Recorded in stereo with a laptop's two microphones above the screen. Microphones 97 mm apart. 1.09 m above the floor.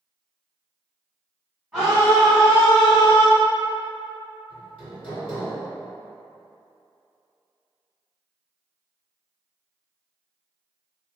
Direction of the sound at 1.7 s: 10° right (ahead or behind).